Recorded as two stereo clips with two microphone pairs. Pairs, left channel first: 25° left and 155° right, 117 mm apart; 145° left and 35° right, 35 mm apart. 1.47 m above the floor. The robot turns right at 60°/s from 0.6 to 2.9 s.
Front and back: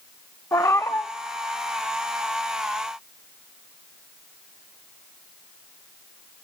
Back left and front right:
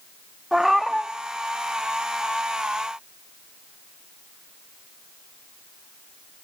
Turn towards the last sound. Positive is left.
turn(degrees=170)